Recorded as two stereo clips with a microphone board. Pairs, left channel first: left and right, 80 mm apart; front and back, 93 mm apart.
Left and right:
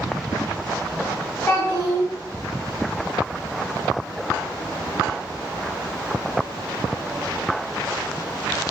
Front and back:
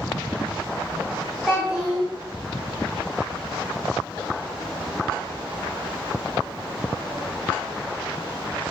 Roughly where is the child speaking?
Left.